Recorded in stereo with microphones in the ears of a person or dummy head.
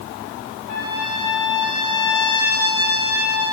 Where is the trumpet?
65° left (ahead or behind), 3 m.